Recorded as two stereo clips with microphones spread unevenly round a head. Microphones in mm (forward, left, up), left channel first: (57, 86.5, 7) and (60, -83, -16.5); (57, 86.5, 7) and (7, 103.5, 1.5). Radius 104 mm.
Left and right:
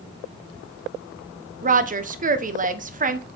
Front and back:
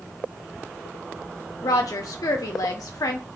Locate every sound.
1.6 s a woman speaking: 45° right, 0.9 m